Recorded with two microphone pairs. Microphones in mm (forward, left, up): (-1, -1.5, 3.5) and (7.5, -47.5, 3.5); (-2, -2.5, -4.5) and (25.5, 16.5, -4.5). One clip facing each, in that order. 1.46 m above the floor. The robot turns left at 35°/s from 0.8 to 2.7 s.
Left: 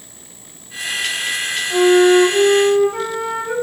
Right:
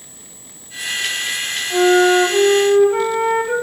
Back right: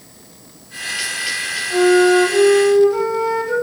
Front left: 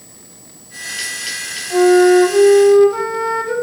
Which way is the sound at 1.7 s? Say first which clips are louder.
Left 1 dB, front left 3 dB; 10° right.